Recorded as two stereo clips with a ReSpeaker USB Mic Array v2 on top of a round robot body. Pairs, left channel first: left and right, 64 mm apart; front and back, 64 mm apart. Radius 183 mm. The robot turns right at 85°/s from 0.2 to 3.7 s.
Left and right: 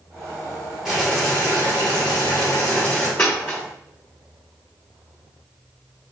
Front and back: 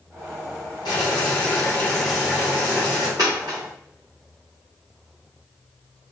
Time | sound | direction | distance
0.8 | boiling | 10° right | 1.0 m
3.2 | a dropped coin | 140° left | 0.7 m